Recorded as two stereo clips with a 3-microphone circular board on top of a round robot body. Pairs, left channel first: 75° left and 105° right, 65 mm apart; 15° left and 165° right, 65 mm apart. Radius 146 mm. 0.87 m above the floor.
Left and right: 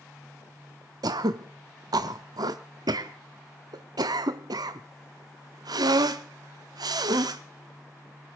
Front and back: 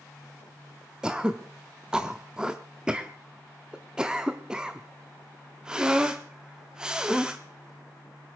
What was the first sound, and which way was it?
Throat clearing, 85° right.